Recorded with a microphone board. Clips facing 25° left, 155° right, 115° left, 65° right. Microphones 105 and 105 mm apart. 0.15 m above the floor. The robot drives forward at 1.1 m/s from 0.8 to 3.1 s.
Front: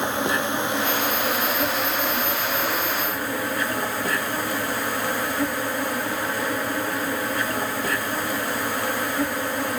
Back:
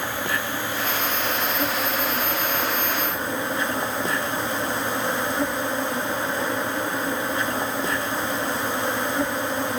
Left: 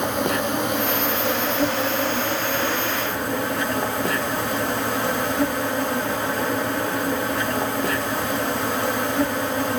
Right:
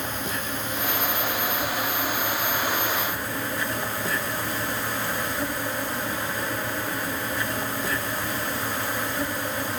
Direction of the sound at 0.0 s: 90° left.